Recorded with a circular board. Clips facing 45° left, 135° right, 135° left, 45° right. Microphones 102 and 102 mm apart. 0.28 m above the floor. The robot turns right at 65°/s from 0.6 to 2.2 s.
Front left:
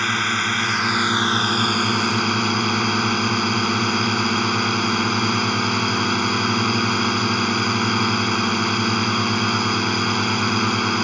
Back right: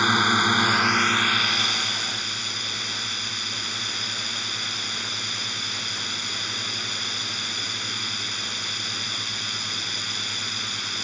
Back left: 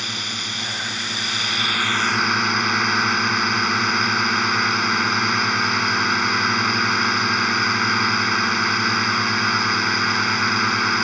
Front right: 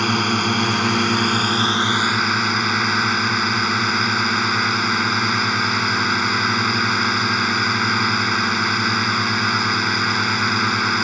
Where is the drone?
60° right; by 11.1 s 45° left.